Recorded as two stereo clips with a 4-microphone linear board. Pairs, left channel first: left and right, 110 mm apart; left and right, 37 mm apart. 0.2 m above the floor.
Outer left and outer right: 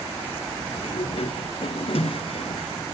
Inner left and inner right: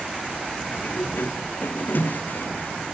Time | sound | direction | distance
0.7 | a sliding door | 60° left (ahead or behind) | 0.6 m